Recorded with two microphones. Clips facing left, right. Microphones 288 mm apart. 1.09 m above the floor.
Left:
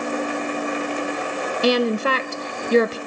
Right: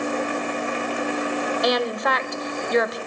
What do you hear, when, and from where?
1.6 s a woman speaking: 35° left (ahead or behind), 0.7 m